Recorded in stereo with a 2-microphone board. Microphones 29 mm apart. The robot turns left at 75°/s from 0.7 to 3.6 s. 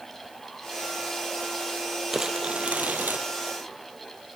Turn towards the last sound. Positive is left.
turn(degrees=-120)